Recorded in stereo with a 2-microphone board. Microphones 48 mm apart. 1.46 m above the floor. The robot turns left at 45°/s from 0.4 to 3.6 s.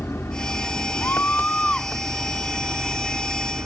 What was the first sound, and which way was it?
An engine running, 75° left.